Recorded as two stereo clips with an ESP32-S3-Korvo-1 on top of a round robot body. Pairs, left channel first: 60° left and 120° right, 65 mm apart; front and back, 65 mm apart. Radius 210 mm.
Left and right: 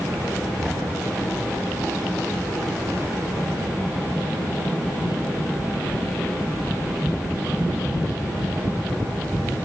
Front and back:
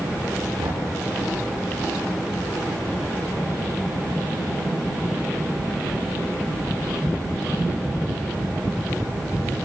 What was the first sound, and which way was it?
Knocking, 155° left.